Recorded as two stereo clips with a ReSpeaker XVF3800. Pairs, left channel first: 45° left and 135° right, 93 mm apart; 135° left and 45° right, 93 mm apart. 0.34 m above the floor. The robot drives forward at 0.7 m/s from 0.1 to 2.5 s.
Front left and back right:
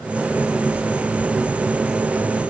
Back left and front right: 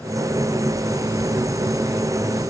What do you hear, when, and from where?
Only background noise.